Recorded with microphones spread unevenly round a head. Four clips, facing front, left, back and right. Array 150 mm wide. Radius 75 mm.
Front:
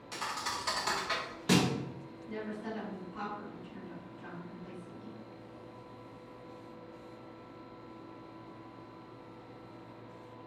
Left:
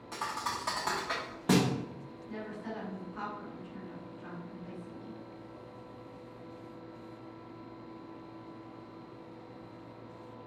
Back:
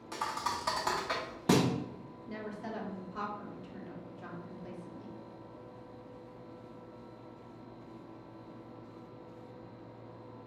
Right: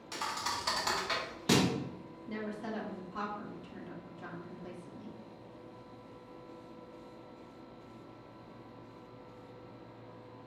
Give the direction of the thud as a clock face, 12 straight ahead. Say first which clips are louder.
Left 1 dB, back 3 dB; 7 o'clock.